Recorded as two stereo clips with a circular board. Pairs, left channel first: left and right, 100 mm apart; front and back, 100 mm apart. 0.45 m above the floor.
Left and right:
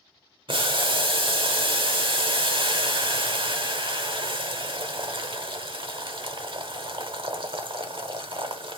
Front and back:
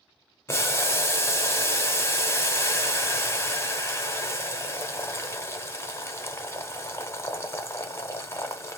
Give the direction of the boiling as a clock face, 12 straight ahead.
2 o'clock.